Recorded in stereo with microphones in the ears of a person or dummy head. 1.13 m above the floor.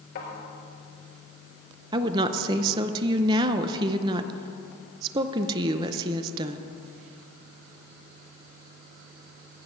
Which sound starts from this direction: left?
A thud, at 0.1 s.